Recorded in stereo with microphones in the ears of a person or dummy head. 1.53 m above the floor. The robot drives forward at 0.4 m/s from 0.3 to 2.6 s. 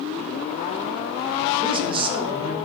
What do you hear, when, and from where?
1.6 s a man speaking: 25° right (ahead or behind), 2 m; by 2.5 s 30° right (ahead or behind), 1.9 m